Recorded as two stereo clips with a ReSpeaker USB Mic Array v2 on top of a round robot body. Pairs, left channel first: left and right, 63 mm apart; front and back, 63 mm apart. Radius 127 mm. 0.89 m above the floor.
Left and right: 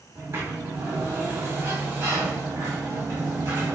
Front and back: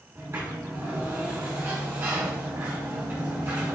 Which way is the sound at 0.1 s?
135° right.